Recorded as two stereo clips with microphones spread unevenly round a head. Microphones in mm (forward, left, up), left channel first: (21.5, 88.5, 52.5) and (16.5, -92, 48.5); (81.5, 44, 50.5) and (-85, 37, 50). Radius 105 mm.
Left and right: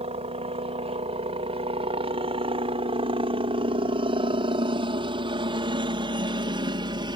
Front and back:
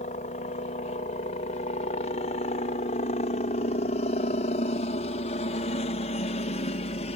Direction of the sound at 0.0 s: 40° right.